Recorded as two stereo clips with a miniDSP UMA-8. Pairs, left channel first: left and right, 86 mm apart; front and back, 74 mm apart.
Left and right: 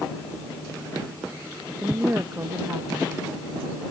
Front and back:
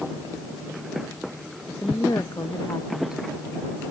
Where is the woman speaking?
30° right.